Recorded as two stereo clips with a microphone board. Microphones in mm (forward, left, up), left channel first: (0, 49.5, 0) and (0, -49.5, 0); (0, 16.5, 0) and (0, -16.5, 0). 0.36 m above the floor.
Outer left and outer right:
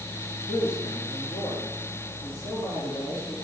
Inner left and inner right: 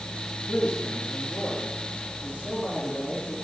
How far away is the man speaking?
About 3.5 m.